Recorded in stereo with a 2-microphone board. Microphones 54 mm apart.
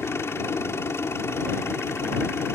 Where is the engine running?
55° left (ahead or behind).